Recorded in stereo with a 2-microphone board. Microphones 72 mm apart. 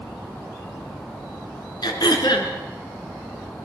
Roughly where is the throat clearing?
Left.